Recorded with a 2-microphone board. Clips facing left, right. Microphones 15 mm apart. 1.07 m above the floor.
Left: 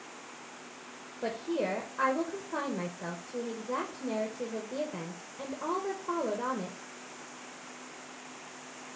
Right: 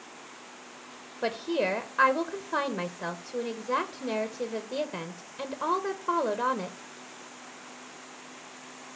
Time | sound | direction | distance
1.2 | a woman speaking | 70° right (ahead or behind) | 0.9 m